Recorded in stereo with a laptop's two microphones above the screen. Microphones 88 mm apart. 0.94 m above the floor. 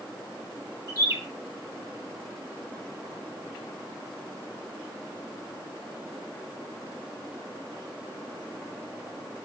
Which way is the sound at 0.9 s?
35° right (ahead or behind).